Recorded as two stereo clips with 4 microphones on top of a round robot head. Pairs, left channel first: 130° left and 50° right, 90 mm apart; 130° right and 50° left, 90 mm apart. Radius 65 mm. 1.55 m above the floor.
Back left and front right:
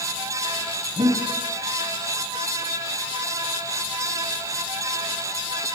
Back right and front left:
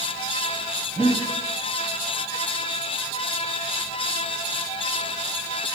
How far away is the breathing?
About 2.5 m.